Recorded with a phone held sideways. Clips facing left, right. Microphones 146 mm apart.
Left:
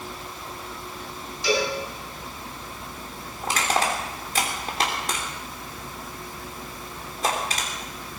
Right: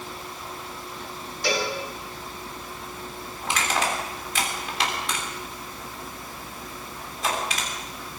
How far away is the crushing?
About 3 m.